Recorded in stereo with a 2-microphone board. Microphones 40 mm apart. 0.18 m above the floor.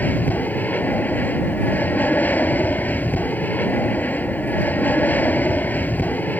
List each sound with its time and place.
0.0 s an aircraft: 45° left (ahead or behind)